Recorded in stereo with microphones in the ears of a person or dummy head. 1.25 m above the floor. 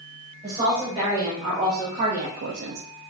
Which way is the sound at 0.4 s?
5° right (ahead or behind).